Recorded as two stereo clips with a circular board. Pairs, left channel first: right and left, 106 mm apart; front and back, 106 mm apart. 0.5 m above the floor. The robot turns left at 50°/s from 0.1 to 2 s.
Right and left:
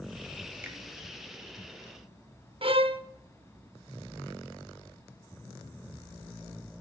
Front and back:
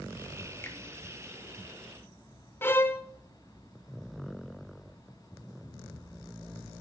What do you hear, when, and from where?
0.6 s a finger snap: 40° left, 1.3 m; by 0.8 s 35° left, 1.3 m
2.6 s a violin: 70° left, 0.5 m